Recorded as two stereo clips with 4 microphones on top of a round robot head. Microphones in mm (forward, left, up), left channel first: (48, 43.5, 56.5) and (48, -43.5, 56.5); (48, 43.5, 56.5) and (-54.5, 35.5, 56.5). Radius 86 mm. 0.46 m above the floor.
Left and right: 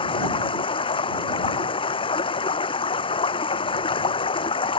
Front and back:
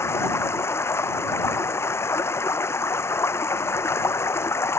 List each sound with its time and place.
0.0 s running water: 70° left